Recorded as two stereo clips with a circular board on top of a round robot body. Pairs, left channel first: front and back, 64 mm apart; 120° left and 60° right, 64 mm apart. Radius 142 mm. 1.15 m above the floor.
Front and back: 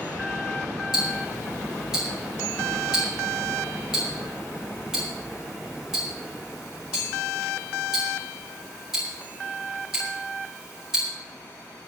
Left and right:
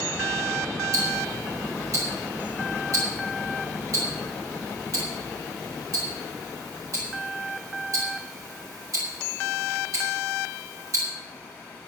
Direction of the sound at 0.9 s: 100° right.